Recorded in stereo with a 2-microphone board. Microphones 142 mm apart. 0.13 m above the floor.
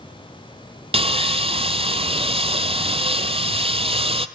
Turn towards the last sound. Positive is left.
turn(degrees=-45)  # may be behind; listen again after turning